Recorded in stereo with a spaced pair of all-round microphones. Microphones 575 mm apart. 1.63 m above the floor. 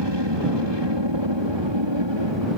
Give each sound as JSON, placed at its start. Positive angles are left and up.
{"t": 0.0, "sound": "an aircraft", "side_deg": -45}